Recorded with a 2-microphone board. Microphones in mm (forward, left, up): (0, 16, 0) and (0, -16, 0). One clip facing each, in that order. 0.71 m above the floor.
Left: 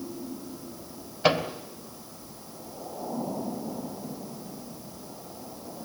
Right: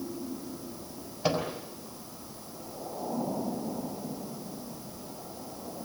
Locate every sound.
1.2 s a microwave: 70° left (ahead or behind), 4 m